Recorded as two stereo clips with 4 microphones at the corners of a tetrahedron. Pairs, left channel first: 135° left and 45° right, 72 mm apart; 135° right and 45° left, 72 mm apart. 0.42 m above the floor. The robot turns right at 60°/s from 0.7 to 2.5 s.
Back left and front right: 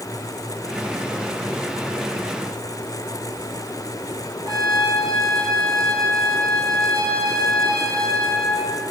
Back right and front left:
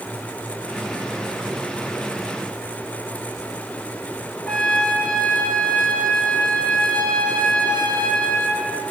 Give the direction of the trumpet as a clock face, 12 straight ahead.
2 o'clock.